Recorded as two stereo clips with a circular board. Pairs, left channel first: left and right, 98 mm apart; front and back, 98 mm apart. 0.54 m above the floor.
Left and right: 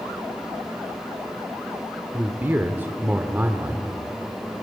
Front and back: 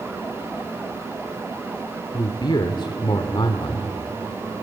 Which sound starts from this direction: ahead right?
A man speaking, at 2.1 s.